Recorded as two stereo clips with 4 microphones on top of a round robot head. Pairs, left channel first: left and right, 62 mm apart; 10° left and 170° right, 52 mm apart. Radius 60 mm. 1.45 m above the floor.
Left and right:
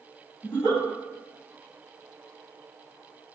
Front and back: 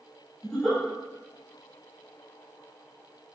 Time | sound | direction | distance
0.4 | a giggle | 90° left | 1.4 m